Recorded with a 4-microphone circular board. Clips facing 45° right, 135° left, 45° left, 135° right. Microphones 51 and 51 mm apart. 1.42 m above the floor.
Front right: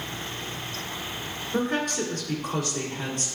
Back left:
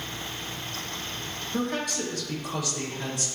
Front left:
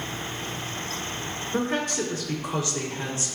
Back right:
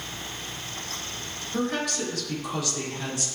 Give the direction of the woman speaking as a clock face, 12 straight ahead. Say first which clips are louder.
Front right 3 dB, front left 1 dB; 12 o'clock.